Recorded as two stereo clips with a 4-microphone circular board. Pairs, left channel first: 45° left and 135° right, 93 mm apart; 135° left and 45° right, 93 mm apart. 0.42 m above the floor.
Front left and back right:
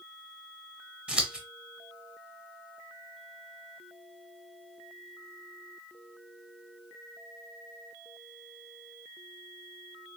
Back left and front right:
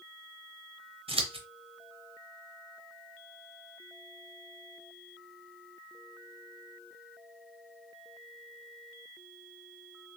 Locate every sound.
1.1 s scissors: 55° right, 0.7 m